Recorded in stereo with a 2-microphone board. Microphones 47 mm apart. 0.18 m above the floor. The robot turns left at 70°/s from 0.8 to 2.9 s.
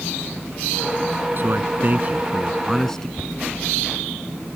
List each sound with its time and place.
1.4 s a man speaking: 85° right; by 3.1 s 165° left
3.2 s a thud: 45° right (ahead or behind)